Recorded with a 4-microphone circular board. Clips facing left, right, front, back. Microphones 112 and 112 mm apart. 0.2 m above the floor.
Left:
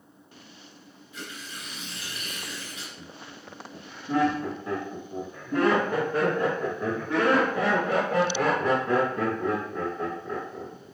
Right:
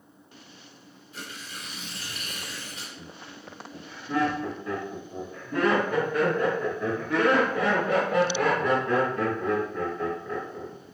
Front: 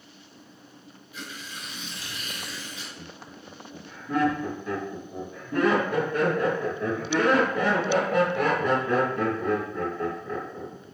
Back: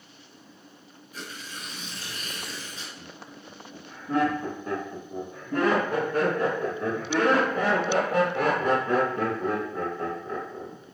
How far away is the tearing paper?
About 2 m.